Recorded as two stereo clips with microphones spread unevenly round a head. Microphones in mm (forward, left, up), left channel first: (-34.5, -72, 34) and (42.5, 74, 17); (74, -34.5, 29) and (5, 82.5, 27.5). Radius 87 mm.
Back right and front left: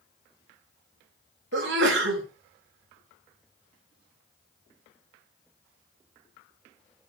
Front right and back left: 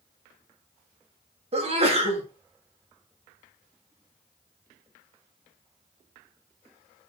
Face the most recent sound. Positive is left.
turn(degrees=75)